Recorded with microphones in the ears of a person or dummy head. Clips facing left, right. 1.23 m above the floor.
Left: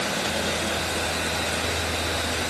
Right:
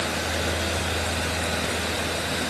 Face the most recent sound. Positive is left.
No sound to turn to.